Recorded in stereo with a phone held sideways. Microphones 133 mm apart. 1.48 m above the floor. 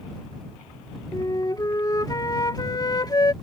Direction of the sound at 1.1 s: 30° left (ahead or behind).